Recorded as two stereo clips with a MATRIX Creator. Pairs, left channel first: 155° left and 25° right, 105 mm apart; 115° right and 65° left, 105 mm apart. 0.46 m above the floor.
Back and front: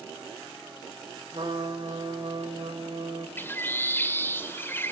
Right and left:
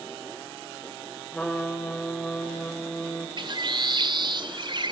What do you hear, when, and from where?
1.3 s a trumpet: 30° right, 2.5 m
3.4 s a bird: 95° left, 1.2 m